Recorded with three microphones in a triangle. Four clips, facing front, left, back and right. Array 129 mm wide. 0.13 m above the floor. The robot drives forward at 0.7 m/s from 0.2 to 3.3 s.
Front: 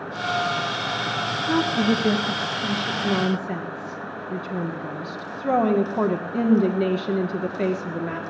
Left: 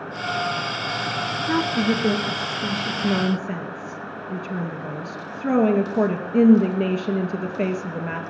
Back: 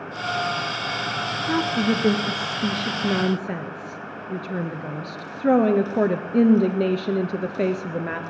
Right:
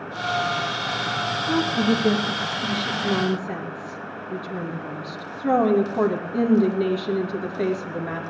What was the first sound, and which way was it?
A woman speaking, 110° left.